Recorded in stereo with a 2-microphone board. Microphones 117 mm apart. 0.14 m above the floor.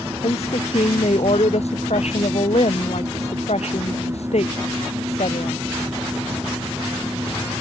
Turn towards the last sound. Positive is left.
turn(degrees=65)  # may be behind; listen again after turning